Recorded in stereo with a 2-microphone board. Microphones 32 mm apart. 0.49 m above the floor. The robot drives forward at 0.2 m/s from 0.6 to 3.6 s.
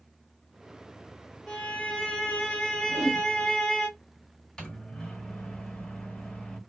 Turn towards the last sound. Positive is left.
turn(degrees=20)  # may be behind; listen again after turning